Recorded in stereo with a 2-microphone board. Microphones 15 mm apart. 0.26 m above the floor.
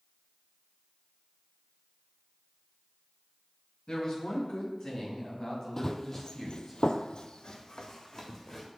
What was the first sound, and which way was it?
A woman speaking, 60° left (ahead or behind).